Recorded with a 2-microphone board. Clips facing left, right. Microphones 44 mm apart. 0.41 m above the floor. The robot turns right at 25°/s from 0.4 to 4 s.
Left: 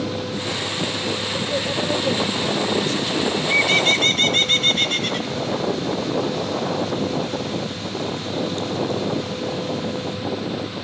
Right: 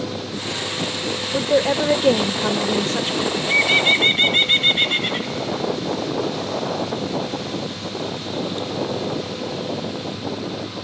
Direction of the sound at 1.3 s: 120° right.